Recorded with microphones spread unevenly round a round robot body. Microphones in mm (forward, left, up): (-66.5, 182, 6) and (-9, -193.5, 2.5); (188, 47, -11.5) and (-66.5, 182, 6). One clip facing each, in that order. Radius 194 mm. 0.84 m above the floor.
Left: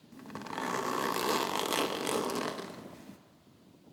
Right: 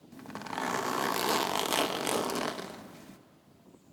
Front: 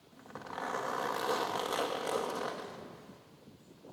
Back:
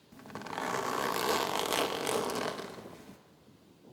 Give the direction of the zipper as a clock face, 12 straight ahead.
6 o'clock.